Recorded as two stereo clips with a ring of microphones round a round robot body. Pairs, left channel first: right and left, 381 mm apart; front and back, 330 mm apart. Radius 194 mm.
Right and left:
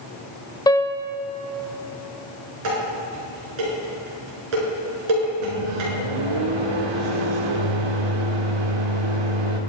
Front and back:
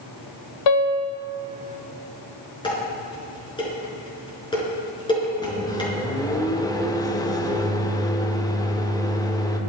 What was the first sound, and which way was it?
A piano, 10° right.